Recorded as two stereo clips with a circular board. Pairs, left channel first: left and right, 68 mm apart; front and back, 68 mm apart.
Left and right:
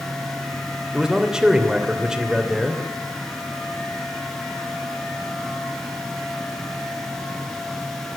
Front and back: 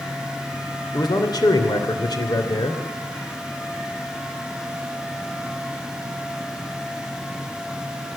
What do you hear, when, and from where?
0.9 s a man speaking: 10° right, 3 m